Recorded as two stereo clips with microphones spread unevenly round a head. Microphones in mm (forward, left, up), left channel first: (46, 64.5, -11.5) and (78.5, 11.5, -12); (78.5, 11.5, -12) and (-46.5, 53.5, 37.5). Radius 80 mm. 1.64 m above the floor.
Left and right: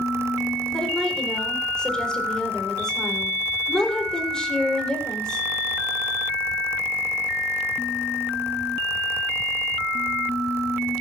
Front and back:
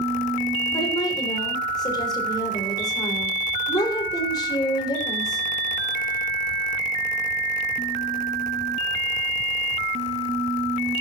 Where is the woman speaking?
45° left, 7 m.